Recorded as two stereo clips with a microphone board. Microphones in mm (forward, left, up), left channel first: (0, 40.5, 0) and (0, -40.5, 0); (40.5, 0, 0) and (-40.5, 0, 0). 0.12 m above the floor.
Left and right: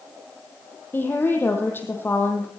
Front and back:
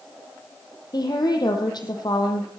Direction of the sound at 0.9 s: 25° left.